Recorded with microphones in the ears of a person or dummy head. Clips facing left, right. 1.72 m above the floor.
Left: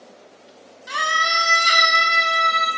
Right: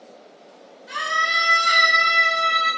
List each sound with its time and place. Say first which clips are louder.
0.9 s a scream: left 3 dB; 85° left, 0.8 m; by 2.7 s 15° left (ahead or behind), 0.7 m